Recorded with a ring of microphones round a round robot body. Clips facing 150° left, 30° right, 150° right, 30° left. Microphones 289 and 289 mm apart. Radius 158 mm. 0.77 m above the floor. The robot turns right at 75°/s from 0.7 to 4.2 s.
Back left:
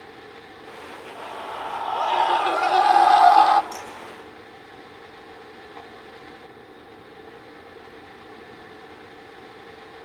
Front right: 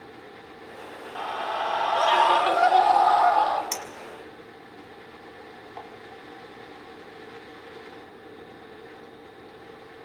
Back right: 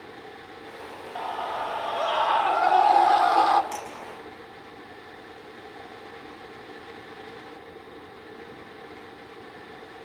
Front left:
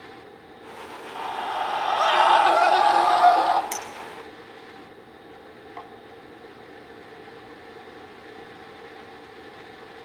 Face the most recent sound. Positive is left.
turn(degrees=15)